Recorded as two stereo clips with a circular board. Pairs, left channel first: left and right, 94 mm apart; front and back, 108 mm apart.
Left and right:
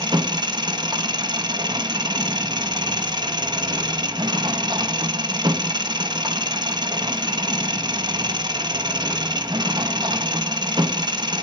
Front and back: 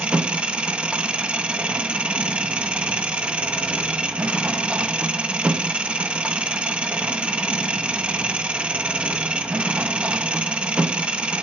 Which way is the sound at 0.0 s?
105° right.